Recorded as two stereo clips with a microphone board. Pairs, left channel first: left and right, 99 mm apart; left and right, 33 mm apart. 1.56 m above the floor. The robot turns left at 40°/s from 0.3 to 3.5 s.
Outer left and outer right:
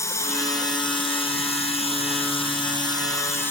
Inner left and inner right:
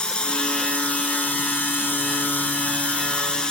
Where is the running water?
150° left; by 3.5 s 25° left.